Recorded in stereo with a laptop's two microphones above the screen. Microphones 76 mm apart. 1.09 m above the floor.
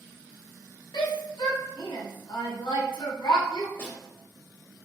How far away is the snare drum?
About 1.0 m.